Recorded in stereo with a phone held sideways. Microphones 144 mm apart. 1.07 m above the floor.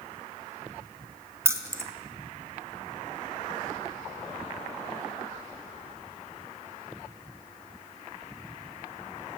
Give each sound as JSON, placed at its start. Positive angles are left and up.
{"t": 1.4, "sound": "keys jangling", "side_deg": -20, "distance_m": 0.6}